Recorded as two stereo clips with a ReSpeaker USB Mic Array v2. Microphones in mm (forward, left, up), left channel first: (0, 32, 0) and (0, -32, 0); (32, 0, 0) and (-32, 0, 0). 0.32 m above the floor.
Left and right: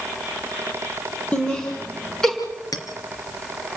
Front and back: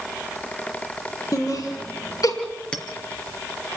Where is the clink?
75° left, 3.5 m.